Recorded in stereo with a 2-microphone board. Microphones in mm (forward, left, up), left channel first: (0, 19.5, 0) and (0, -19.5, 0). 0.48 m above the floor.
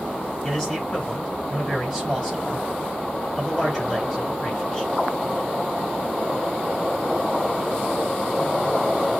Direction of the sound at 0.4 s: 15° left (ahead or behind).